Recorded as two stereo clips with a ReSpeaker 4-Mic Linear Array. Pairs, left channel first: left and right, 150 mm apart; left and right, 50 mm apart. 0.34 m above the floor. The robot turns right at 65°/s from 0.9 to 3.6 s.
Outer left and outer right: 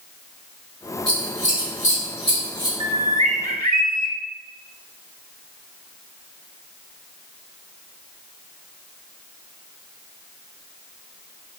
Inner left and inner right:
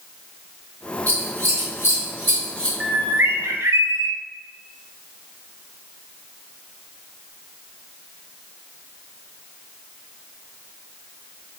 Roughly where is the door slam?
I don't hear a door slam.